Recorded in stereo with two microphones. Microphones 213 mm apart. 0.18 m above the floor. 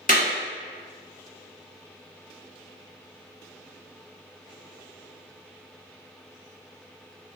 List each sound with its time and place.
0.1 s a clap: 40° left (ahead or behind), 1.2 m